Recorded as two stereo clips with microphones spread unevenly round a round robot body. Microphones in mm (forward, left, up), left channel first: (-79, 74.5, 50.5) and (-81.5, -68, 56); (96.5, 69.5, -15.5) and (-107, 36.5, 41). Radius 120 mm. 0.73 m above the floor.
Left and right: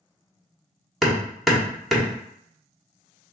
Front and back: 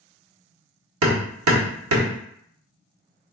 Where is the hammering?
Straight behind, 1.5 m.